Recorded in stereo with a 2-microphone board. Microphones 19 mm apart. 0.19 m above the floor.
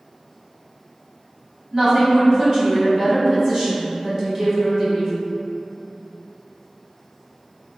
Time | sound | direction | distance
1.7 | a woman speaking | 30° right (ahead or behind) | 1.2 m